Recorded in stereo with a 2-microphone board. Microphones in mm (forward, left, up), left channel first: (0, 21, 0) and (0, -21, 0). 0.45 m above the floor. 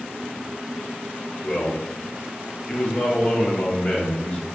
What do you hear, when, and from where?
1.4 s a man speaking: 40° left (ahead or behind), 1.5 m